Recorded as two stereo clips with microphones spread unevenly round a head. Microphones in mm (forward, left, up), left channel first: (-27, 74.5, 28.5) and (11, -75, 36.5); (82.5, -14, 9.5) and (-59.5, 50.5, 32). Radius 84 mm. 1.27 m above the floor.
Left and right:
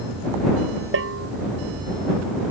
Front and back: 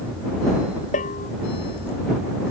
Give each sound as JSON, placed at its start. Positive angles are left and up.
{"t": 0.9, "sound": "a bell", "azimuth_deg": -75}